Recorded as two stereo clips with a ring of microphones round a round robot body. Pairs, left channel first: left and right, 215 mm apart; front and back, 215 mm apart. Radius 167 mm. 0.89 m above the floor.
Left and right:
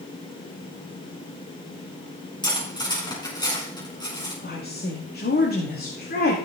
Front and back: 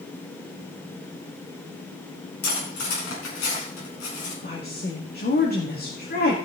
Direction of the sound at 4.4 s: 45° left.